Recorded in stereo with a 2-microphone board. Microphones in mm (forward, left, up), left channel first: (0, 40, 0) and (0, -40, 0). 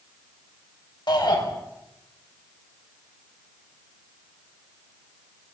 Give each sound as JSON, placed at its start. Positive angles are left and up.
{"t": 1.1, "sound": "a shout", "side_deg": 70, "distance_m": 5.5}